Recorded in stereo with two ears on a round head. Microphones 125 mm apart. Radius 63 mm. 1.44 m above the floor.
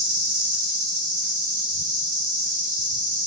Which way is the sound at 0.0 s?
70° right (ahead or behind).